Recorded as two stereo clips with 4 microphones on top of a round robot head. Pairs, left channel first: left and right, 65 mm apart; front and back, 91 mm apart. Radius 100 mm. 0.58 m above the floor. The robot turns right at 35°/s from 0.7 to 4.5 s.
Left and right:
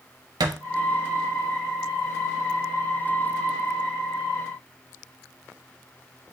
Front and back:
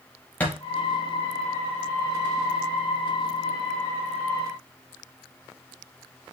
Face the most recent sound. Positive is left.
turn(degrees=55)